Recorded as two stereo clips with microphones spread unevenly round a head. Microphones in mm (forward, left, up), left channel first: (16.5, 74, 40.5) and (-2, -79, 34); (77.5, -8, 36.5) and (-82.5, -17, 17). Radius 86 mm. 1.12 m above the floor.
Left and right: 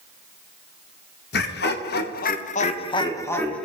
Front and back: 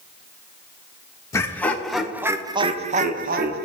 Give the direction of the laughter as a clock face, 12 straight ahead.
9 o'clock.